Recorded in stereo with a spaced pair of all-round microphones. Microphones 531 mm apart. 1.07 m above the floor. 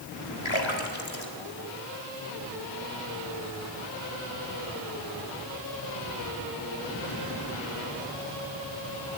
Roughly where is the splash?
Left.